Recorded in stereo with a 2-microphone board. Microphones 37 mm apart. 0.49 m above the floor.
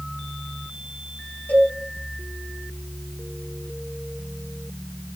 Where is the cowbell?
70° left (ahead or behind), 3.5 m.